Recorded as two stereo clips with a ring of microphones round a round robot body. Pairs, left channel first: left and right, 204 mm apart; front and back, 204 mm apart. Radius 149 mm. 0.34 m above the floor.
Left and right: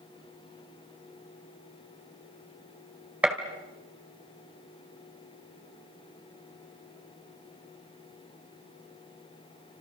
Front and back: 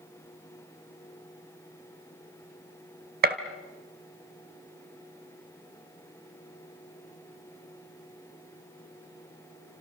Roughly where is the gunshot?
Behind.